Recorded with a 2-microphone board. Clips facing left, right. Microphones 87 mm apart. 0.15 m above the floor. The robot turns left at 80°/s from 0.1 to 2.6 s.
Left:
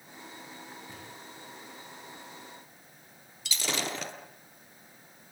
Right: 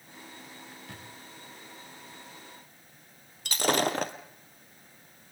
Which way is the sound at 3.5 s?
50° right (ahead or behind).